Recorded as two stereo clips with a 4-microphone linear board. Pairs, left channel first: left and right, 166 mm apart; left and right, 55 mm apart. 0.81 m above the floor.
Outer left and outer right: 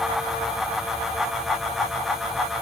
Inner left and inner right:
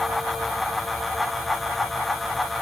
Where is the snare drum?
I don't hear a snare drum.